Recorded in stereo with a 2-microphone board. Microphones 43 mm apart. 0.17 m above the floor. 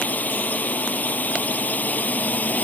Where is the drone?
40° left (ahead or behind).